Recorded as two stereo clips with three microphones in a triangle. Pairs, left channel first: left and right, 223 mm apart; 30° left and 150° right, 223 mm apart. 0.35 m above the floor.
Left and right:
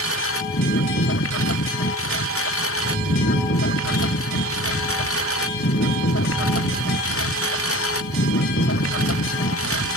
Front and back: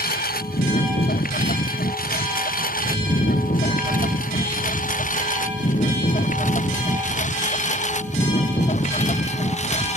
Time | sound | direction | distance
0.0 | a lawn mower | 80° left | ?
2.8 | a rattle | 90° right | ?